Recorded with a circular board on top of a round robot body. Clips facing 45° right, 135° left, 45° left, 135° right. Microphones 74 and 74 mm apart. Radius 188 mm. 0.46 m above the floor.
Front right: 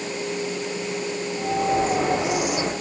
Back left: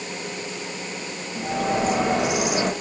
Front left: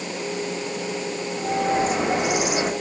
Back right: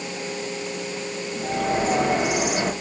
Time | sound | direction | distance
1.4 | a bird | 120° left | 3.5 m